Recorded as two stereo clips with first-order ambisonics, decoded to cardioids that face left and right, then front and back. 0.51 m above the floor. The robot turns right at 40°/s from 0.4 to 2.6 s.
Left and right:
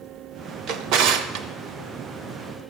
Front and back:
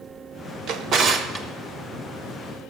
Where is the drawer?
130° right, 0.6 m; by 1.5 s 100° right, 0.6 m.